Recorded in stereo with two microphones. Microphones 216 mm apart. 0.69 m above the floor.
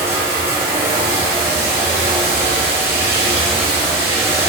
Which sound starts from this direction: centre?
Running water, at 0.0 s.